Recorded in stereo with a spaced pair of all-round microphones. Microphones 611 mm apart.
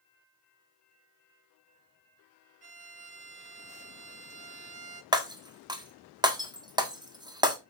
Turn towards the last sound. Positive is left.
turn(degrees=-5)  # may be behind; listen again after turning